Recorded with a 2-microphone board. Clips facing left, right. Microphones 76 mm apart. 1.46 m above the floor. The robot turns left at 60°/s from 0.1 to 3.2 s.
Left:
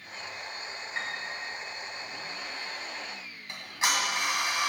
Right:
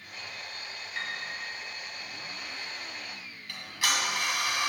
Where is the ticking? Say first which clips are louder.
Left 2 dB; 25° left (ahead or behind), 2.5 m.